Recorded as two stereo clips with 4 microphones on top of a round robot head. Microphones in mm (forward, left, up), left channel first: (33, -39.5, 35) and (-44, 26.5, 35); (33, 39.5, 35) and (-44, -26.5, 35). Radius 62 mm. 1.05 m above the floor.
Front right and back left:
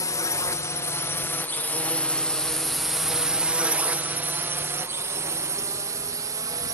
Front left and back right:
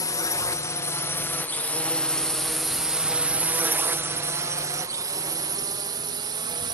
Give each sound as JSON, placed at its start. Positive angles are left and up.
{"t": 0.0, "sound": "a drone", "azimuth_deg": 0}